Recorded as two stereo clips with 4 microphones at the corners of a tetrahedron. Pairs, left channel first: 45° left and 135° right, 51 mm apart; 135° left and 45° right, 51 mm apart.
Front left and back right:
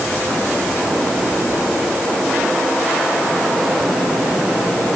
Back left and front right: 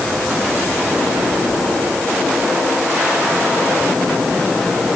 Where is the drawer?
I don't hear a drawer.